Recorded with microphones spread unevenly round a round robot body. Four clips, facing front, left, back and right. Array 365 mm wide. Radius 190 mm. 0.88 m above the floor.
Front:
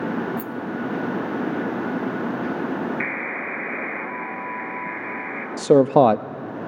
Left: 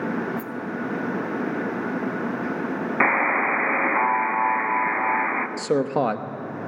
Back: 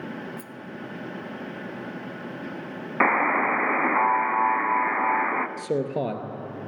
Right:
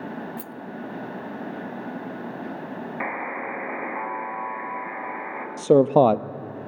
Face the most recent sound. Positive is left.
turn(degrees=-15)